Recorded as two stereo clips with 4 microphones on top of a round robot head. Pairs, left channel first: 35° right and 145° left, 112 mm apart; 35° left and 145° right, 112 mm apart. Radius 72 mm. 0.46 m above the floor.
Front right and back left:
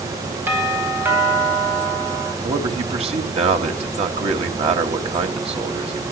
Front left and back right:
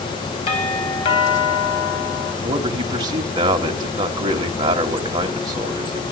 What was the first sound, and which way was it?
A doorbell, 75° left.